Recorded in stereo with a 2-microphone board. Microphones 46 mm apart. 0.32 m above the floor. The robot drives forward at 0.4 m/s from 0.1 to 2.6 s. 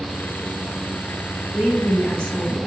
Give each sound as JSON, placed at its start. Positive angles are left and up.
{"t": 1.5, "sound": "a woman speaking", "side_deg": 25, "distance_m": 1.2}